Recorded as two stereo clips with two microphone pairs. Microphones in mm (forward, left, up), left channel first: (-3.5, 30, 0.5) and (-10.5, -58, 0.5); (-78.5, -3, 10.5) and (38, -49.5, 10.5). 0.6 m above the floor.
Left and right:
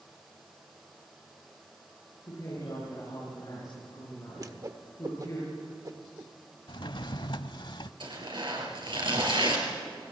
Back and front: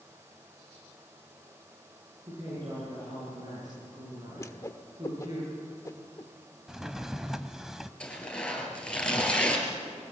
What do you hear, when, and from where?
2.3 s a woman speaking: 35° left, 10 m
4.4 s a whoosh: 140° right, 1.1 m
6.7 s a drawer: 65° left, 0.8 m
8.0 s tearing paper: 120° right, 5 m